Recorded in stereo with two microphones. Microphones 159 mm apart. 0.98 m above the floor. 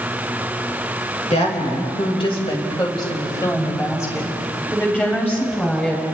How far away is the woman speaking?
About 4.5 m.